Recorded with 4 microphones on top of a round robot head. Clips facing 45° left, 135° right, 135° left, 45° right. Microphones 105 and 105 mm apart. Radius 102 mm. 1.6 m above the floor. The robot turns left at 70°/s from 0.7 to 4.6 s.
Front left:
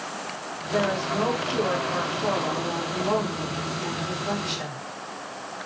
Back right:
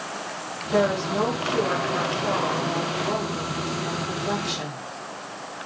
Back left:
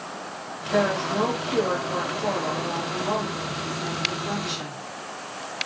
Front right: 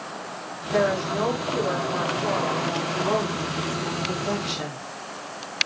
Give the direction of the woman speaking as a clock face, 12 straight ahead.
5 o'clock.